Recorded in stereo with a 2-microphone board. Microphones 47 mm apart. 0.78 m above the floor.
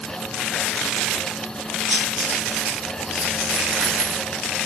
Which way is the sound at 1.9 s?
65° right (ahead or behind).